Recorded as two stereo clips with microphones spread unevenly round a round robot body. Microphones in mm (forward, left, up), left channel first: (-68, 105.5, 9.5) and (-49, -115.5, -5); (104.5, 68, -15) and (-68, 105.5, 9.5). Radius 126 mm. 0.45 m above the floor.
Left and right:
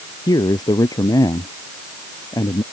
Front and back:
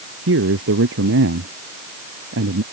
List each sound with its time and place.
0.3 s a man speaking: 170° left